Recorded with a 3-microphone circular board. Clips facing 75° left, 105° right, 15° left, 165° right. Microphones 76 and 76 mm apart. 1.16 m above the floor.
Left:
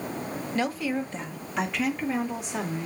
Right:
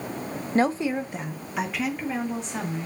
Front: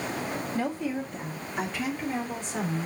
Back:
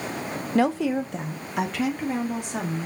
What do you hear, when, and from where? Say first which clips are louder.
0.6 s a woman speaking: right 5 dB, back 10 dB; 155° right, 0.6 m; by 2.9 s 160° left, 2 m